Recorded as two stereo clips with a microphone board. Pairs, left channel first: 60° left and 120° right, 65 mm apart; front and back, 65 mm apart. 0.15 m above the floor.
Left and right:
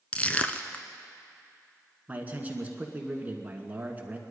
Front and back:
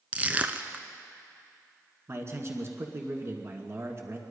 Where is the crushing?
120° left, 0.8 m.